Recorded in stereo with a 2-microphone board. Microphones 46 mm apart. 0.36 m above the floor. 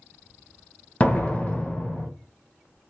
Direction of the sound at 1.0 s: 30° left (ahead or behind).